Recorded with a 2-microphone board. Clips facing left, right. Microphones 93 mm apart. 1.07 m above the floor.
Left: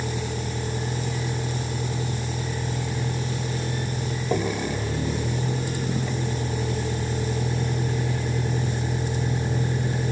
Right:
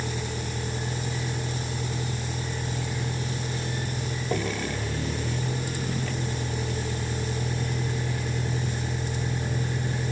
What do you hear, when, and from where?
0.0 s a vehicle: 15° left (ahead or behind); by 10.1 s 20° left (ahead or behind)